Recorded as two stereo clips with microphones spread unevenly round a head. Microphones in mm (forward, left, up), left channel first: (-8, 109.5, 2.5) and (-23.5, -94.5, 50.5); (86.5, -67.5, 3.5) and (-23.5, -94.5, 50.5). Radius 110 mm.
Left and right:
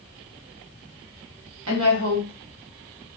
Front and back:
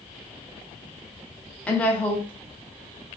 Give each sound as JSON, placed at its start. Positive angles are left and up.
{"t": 1.7, "sound": "a woman speaking", "azimuth_deg": -70, "distance_m": 1.4}